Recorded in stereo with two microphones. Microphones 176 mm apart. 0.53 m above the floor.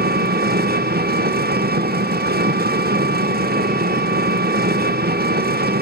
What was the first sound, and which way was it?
An engine running, 65° right (ahead or behind).